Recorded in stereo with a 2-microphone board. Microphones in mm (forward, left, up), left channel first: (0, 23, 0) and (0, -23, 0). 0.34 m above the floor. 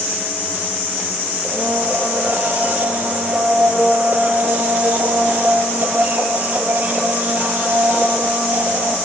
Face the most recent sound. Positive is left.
turn(degrees=-35)  # may be behind; listen again after turning